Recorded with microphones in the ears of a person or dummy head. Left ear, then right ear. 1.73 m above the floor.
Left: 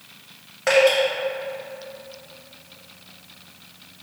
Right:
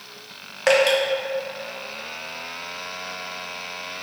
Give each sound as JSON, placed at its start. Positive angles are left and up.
{"t": 0.7, "sound": "dripping", "side_deg": -25, "distance_m": 0.6}